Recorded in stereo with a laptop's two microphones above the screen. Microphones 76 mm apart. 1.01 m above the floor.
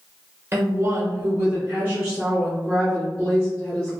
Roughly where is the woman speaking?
Right.